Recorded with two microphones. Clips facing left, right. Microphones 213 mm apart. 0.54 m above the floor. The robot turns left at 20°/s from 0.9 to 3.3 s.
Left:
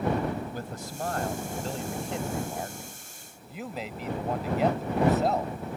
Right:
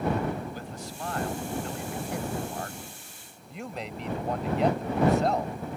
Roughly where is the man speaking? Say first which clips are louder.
Left 2 dB; ahead left.